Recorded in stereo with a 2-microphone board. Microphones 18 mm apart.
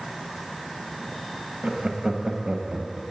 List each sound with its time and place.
1.6 s laughter: 50° right (ahead or behind), 2.5 m; by 3.0 s 35° right (ahead or behind), 2.5 m